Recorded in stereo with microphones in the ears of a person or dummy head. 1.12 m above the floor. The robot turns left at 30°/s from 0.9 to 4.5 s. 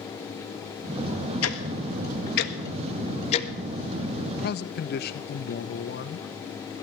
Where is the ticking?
75° left (ahead or behind), 1.4 m; by 3.5 s 35° left (ahead or behind), 1.4 m.